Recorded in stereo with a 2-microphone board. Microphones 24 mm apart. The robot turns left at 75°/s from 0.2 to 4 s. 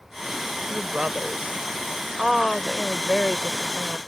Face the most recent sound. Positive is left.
turn(degrees=75)